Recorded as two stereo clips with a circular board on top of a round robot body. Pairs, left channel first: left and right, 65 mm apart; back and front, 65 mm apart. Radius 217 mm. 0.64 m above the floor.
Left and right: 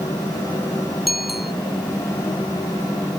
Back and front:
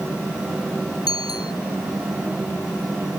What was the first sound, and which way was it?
A bicycle bell, 175° right.